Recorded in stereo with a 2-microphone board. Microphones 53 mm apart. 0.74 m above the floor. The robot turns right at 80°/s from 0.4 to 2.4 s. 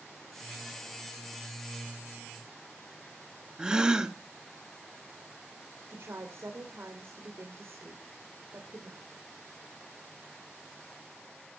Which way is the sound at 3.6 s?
15° right (ahead or behind).